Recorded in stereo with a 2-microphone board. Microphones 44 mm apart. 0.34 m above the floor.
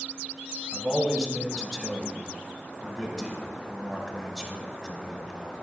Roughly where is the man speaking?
Centre.